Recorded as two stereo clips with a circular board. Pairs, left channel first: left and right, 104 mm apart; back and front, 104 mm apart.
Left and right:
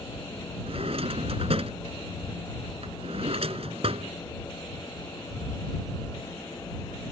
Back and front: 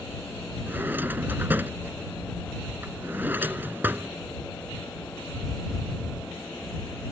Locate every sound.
0.7 s a drawer: 70° right